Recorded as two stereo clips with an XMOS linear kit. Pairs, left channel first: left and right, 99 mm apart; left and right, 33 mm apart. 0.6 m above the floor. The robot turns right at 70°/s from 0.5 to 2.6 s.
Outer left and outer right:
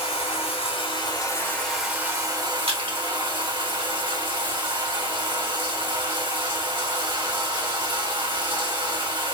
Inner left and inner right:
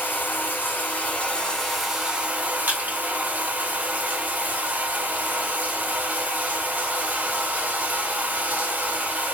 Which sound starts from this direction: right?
Crushing, at 2.7 s.